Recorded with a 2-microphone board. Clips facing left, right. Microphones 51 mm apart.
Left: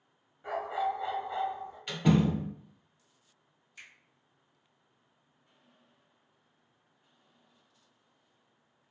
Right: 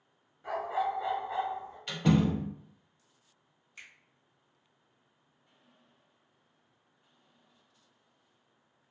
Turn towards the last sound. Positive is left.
turn(degrees=-40)  # may be behind; listen again after turning